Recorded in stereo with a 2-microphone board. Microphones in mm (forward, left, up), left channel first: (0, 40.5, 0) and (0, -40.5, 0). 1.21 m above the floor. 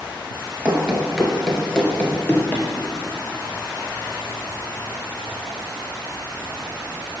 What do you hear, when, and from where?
0.7 s running footsteps: 15° right (ahead or behind), 1.4 m; by 2.6 s 25° left (ahead or behind), 1.5 m